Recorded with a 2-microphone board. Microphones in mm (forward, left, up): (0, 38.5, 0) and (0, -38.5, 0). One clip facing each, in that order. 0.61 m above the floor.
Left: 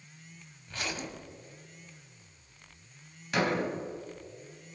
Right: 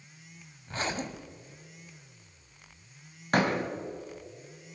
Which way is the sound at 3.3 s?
45° right (ahead or behind).